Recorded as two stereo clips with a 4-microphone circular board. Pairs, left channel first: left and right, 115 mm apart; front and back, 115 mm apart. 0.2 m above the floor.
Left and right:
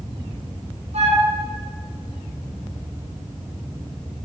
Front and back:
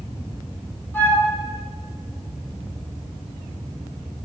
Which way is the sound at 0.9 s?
75° right.